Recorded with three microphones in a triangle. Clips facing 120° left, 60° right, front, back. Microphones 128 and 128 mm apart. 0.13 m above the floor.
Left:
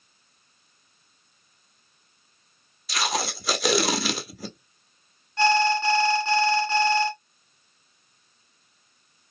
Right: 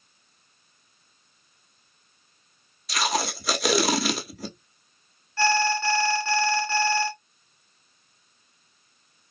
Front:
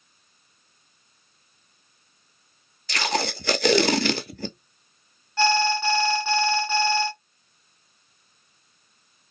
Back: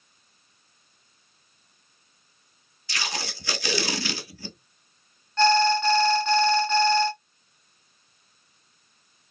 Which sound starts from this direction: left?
An alarm, at 5.4 s.